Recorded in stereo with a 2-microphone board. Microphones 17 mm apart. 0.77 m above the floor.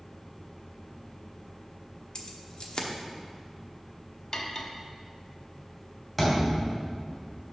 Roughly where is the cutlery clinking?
Left.